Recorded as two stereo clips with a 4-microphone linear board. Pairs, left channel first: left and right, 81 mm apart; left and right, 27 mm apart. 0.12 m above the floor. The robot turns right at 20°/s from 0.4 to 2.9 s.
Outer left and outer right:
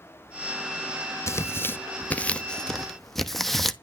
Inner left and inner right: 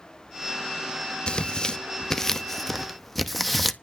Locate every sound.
1.3 s tearing paper: 35° left (ahead or behind), 0.8 m; by 3.7 s 5° left (ahead or behind), 0.8 m